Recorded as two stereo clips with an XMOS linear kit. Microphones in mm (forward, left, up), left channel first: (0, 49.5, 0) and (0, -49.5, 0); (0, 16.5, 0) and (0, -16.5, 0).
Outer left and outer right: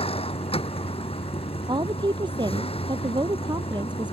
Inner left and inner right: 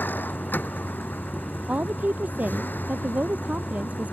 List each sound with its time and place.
0.0 s a vehicle: 75° left (ahead or behind)
1.7 s a woman speaking: 50° right (ahead or behind)